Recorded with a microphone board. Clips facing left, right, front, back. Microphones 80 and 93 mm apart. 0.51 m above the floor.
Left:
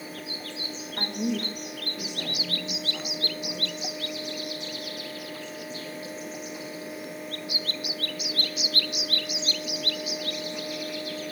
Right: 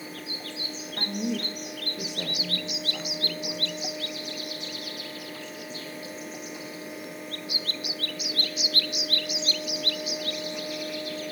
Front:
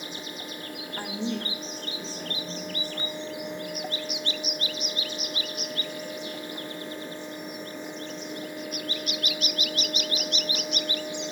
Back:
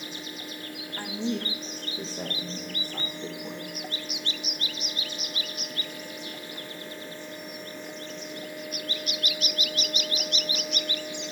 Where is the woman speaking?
45° left, 0.7 m; by 3.7 s 135° right, 3.5 m.